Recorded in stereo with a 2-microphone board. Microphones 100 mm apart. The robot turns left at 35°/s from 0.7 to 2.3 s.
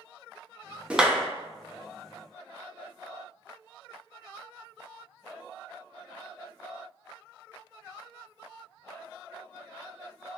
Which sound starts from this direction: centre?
A clap, at 0.9 s.